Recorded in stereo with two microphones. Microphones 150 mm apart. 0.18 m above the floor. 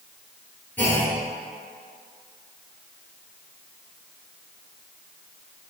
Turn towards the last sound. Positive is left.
turn(degrees=10)  # may be behind; listen again after turning